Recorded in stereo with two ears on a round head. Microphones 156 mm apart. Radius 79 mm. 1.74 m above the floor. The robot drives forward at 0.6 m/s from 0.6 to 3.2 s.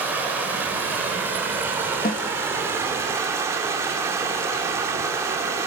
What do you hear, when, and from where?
0.0 s running water: 10° right (ahead or behind), 4 m; by 5.7 s 15° right (ahead or behind), 2.5 m
2.0 s a snare drum: 50° left (ahead or behind), 1.4 m